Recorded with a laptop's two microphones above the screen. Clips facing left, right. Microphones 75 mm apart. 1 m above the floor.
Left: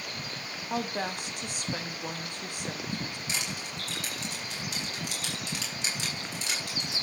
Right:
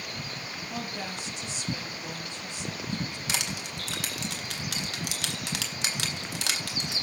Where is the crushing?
80° right, 1.8 m.